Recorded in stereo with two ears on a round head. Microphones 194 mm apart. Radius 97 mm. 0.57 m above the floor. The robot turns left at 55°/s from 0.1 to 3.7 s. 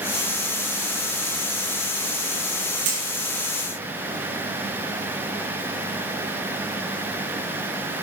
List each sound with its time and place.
2.9 s hammering: 80° right, 5.5 m